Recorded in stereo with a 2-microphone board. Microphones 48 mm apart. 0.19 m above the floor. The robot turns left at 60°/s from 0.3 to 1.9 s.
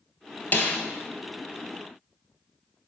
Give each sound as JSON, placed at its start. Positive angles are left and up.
{"t": 0.5, "sound": "a snare drum", "side_deg": 35, "distance_m": 1.2}